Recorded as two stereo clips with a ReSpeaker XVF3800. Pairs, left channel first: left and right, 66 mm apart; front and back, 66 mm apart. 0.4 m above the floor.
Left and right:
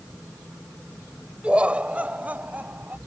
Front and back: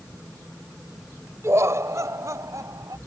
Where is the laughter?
160° right; by 3.0 s 155° right.